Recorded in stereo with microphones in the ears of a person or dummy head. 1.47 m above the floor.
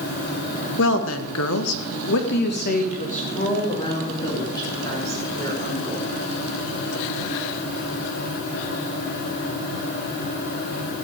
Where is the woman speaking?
65° left (ahead or behind), 2.0 m; by 6.0 s 5° left (ahead or behind), 5 m.